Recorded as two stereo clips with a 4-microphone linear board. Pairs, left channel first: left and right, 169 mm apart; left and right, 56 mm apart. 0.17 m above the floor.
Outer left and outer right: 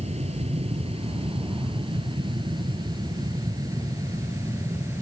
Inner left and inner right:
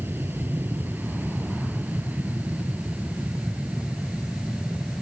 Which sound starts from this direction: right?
An aircraft, at 0.0 s.